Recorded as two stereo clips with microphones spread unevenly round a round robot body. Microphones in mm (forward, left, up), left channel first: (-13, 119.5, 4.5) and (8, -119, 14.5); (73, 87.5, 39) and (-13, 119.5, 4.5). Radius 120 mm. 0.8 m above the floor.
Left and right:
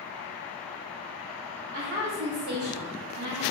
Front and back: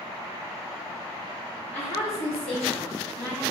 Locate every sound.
1.7 s a woman speaking: 40° right, 1.1 m